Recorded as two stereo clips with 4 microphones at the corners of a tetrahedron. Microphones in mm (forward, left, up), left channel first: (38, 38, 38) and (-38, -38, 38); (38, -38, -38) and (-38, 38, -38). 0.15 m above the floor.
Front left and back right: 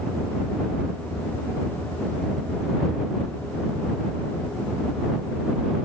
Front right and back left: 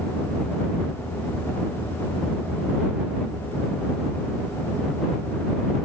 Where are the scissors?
No scissors in this recording.